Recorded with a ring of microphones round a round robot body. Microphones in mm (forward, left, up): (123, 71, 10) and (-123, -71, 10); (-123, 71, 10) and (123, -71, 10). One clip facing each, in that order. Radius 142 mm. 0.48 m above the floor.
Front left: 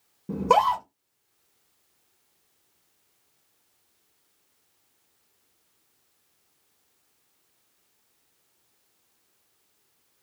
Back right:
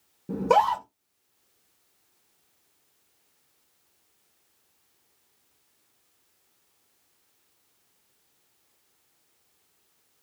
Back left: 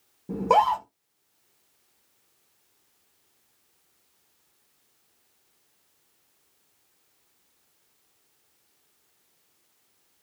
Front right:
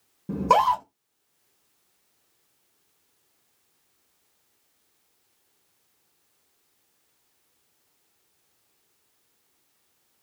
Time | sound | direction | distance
0.3 | a scream | 40° right | 0.8 m